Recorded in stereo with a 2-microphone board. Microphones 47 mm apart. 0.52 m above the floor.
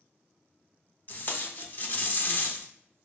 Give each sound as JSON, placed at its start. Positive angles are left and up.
{"t": 1.1, "sound": "tape being pulled", "side_deg": 40, "distance_m": 0.5}